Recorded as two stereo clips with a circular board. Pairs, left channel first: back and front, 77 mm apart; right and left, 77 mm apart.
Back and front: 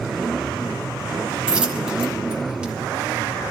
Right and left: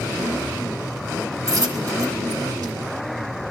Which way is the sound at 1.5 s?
75° left.